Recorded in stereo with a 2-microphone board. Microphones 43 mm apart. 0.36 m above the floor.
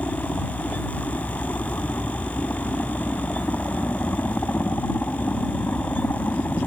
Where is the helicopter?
50° left (ahead or behind).